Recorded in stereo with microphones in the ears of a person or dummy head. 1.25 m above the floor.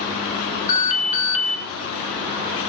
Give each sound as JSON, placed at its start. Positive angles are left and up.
{"t": 0.7, "sound": "an alarm", "side_deg": 40, "distance_m": 3.0}